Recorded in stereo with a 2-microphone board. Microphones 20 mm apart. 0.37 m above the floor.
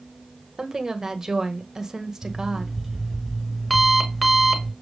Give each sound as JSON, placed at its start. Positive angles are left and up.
{"t": 0.6, "sound": "a woman speaking", "side_deg": -25, "distance_m": 1.3}
{"t": 2.2, "sound": "an alarm clock", "side_deg": -10, "distance_m": 1.7}